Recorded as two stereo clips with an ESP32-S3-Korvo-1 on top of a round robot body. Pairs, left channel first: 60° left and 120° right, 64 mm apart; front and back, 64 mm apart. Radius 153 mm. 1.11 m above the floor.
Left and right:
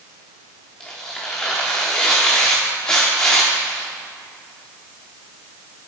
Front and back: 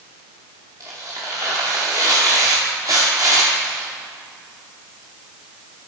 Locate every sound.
0.8 s tearing paper: 135° left, 0.7 m